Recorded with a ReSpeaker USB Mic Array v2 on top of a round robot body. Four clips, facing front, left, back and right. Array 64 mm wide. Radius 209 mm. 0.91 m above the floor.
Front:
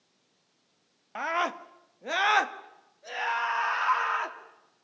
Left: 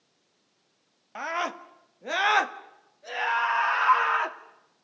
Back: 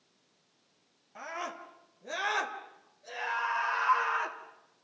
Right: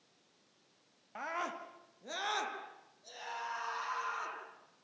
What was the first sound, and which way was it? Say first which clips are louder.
A scream: left 9 dB, front 10 dB; 25° left.